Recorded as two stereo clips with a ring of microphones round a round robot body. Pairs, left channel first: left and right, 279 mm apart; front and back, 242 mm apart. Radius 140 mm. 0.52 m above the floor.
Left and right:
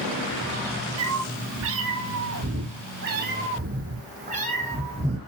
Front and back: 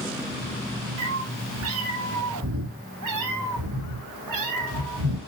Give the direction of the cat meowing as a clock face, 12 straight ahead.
4 o'clock.